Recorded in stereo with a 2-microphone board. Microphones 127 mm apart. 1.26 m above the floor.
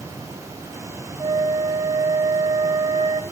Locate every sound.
1.2 s a flute: 45° right (ahead or behind), 1.0 m